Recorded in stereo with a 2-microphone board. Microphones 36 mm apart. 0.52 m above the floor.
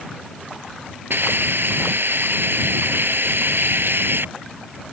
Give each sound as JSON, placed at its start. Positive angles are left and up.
{"t": 1.1, "sound": "a hiss", "side_deg": -75}